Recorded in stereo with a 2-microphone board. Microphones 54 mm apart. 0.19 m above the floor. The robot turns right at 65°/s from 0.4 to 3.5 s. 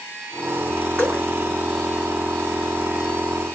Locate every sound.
1.0 s dripping: 50° right (ahead or behind), 2.5 m